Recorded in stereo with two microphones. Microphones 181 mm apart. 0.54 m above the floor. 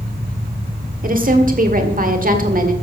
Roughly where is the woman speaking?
Right.